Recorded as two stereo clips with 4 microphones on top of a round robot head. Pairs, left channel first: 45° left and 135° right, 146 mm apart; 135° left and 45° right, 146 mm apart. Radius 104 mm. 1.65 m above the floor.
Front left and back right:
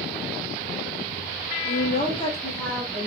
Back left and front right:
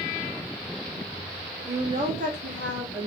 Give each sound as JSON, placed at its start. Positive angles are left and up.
{"t": 1.6, "sound": "a woman speaking", "azimuth_deg": 35, "distance_m": 0.7}